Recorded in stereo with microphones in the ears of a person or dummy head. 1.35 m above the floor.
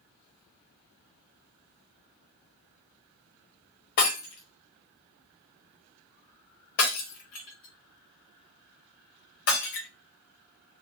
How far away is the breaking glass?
About 1.1 m.